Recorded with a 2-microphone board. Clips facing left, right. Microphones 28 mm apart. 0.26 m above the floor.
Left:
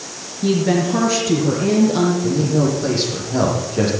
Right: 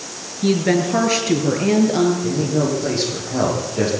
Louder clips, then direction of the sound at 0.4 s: Even; 30° right (ahead or behind).